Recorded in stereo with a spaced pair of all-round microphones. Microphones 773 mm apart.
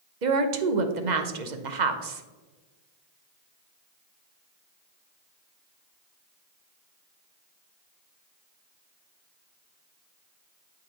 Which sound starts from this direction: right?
A woman speaking, at 0.2 s.